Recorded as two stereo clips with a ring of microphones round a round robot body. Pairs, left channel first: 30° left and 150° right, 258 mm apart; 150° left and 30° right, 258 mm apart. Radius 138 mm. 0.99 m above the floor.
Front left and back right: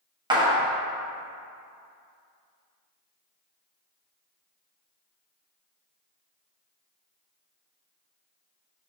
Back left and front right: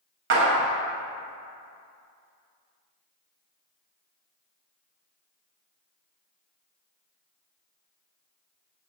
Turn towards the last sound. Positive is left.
turn(degrees=-75)